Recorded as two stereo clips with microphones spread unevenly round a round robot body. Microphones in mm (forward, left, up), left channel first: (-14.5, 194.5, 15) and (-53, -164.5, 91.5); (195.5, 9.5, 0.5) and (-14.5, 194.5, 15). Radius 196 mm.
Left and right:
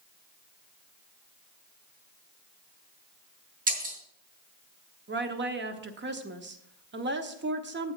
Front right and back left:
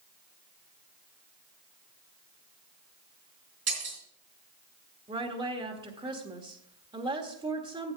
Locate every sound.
3.7 s breaking glass: 165° right, 3.5 m
5.1 s a woman speaking: 155° right, 1.2 m